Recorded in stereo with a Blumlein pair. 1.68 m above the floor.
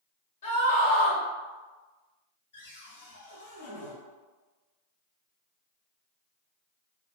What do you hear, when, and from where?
0.4 s a scream: 65° left, 1.2 m
2.5 s a cupboard door: 55° left, 1.2 m